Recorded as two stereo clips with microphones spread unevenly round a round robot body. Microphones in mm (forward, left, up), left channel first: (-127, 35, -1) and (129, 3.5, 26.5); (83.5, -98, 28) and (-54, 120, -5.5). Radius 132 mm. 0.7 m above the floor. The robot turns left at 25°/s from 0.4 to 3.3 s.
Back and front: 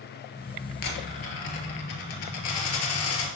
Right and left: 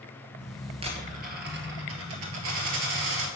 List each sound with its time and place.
0.8 s a dropped coin: 165° right, 2 m; by 3.3 s 135° left, 2 m